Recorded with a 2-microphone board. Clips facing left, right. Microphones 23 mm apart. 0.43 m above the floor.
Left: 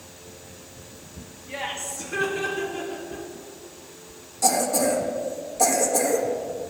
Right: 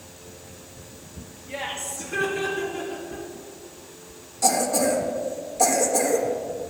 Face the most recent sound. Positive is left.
turn(degrees=-10)  # may be behind; listen again after turning